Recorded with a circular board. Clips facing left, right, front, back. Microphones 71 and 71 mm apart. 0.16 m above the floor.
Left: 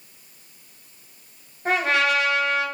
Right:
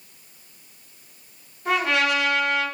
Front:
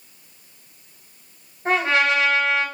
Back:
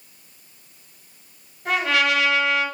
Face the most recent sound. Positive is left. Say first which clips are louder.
# left 1 dB, front 2 dB
turn(degrees=55)